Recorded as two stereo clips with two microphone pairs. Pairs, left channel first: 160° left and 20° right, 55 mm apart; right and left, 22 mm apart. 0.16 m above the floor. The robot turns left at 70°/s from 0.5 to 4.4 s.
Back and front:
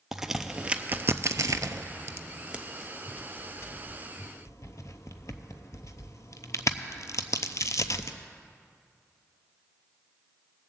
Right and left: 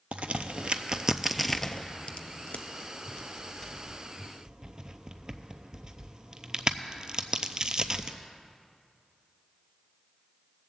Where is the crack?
60° left, 0.5 m; by 8.2 s 145° left, 0.5 m.